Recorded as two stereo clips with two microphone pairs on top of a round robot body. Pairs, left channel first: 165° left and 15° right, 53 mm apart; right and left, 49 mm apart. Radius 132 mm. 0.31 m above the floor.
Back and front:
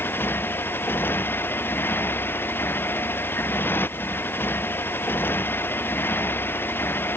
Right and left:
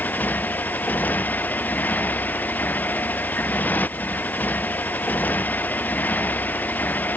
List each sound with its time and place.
0.0 s a motorcycle: 145° right